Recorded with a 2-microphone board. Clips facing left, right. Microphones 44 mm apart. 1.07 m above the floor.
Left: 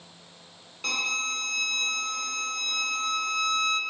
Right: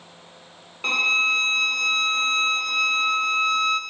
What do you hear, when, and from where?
0.8 s a violin: 25° right (ahead or behind), 0.7 m